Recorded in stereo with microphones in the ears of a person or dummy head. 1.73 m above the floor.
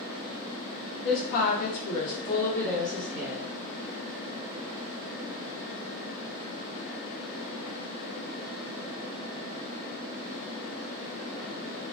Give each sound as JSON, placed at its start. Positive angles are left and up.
{"t": 1.1, "sound": "a woman speaking", "side_deg": 65, "distance_m": 0.9}